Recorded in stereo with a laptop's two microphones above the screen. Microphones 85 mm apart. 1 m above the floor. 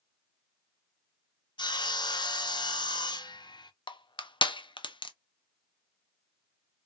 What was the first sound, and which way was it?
Sawing, 55° left (ahead or behind).